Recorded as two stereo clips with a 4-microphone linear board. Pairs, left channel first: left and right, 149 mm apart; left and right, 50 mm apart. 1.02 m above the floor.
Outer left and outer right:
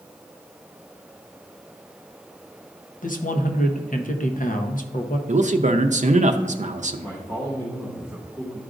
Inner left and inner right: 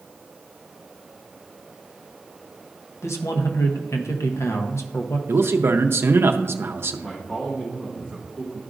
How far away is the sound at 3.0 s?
About 0.8 m.